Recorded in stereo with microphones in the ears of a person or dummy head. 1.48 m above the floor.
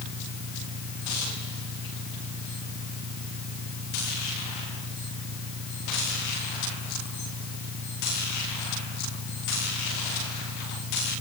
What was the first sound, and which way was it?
An engine running, 55° right (ahead or behind).